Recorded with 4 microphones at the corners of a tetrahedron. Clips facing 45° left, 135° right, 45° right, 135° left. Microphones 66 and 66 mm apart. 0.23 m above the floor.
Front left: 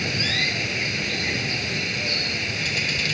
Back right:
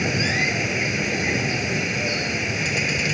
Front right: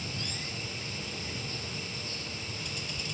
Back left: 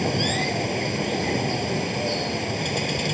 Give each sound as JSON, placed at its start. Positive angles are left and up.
{"t": 0.0, "sound": "running water", "azimuth_deg": 155}